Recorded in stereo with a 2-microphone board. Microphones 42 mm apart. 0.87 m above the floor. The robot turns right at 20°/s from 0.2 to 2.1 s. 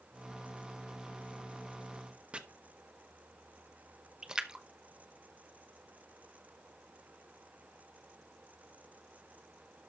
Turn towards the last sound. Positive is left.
turn(degrees=-20)  # may be behind; listen again after turning